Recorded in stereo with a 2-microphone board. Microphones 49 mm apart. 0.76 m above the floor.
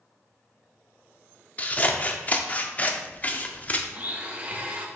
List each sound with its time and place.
1.6 s scissors: 30° left (ahead or behind), 0.6 m
3.9 s a blender: 25° right (ahead or behind), 1.0 m